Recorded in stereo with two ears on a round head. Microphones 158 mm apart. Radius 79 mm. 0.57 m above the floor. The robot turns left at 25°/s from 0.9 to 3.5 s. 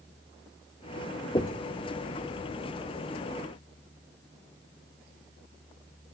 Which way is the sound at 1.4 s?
25° left (ahead or behind).